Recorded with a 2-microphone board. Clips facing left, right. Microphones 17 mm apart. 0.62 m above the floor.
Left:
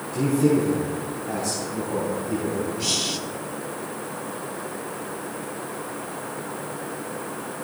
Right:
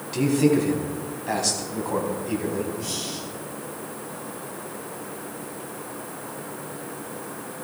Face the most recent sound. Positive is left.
turn(degrees=50)  # may be behind; listen again after turning